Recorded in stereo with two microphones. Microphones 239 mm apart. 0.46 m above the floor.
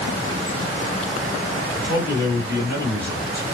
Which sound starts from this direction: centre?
A man speaking, at 1.8 s.